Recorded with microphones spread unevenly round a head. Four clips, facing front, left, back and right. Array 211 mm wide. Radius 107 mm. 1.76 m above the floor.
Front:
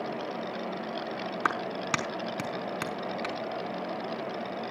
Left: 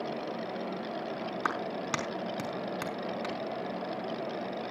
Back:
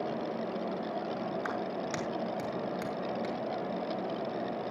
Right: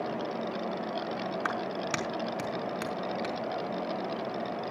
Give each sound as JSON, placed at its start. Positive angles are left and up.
{"t": 1.4, "sound": "a clap", "azimuth_deg": 15, "distance_m": 4.0}